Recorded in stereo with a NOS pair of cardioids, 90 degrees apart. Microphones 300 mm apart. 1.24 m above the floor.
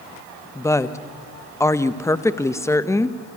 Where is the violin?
I don't hear a violin.